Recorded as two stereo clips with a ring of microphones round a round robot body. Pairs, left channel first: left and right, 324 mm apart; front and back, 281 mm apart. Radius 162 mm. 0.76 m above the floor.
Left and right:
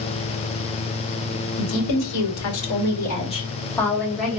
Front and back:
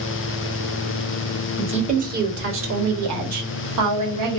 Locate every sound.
1.6 s a woman speaking: 110° left, 1.2 m; by 4.4 s 175° right, 1.6 m